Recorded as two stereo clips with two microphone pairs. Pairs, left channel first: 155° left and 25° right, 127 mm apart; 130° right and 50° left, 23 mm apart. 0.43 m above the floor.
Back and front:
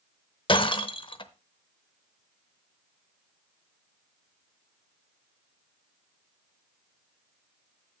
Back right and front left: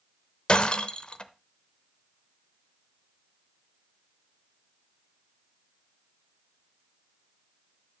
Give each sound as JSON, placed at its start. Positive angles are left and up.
{"t": 0.5, "sound": "breaking glass", "azimuth_deg": -170, "distance_m": 0.7}